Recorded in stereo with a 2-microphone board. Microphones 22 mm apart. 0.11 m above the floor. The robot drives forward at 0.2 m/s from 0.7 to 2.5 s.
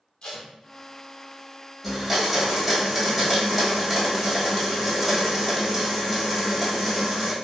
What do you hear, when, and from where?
0.2 s tape being pulled: 50° left (ahead or behind), 1.3 m
1.8 s a blender: 5° left (ahead or behind), 1.4 m